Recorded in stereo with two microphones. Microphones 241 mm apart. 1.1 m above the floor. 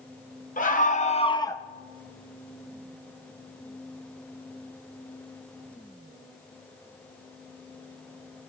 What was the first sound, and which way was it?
A scream, 35° left (ahead or behind).